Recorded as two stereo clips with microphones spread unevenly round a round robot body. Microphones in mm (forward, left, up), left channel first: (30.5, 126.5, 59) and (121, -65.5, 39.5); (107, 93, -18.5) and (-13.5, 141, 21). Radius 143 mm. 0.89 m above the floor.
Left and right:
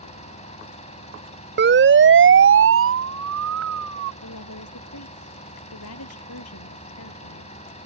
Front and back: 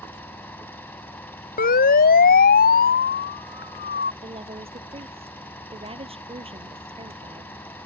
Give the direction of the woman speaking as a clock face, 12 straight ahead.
8 o'clock.